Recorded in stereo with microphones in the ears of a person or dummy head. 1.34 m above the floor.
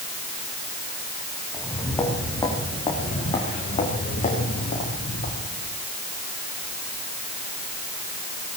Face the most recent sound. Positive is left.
turn(degrees=55)  # may be behind; listen again after turning